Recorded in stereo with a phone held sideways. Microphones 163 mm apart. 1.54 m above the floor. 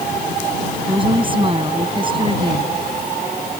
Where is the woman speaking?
30° right (ahead or behind).